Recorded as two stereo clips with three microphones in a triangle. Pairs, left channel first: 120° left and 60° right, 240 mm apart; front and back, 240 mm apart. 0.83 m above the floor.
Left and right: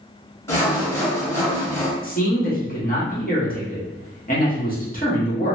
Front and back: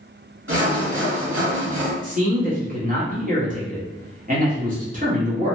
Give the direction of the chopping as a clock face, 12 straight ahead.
No chopping in this recording.